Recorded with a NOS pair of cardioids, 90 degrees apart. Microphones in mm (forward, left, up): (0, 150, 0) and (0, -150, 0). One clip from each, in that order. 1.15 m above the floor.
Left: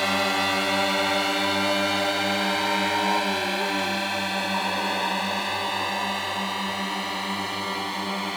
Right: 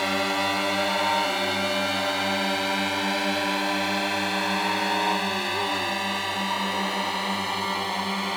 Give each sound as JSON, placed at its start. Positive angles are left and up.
{"t": 0.0, "sound": "a drone", "azimuth_deg": 15}